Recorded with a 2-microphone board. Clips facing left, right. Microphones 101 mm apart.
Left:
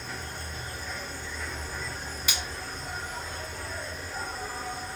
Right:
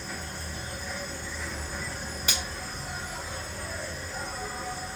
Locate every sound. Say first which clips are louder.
0.0 s an insect: even; 5° right (ahead or behind), 0.8 m
2.3 s a finger snap: right 1 dB; 40° right (ahead or behind), 1.2 m